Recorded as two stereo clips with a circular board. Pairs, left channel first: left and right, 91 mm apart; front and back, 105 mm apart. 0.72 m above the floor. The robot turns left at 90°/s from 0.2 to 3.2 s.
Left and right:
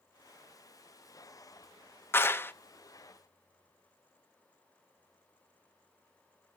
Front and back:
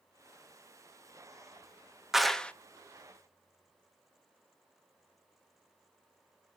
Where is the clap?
100° left, 0.6 m; by 2.5 s 65° left, 0.6 m.